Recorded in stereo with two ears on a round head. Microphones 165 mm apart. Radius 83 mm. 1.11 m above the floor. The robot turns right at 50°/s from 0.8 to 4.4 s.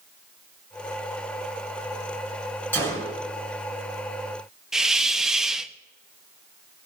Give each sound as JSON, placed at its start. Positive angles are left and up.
{"t": 2.7, "sound": "a gunshot", "side_deg": 10, "distance_m": 4.5}
{"t": 4.7, "sound": "a hiss", "side_deg": -5, "distance_m": 0.6}